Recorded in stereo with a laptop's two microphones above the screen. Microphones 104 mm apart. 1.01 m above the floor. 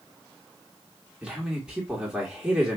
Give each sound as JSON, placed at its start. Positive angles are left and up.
{"t": 1.2, "sound": "a man speaking", "side_deg": -10, "distance_m": 1.8}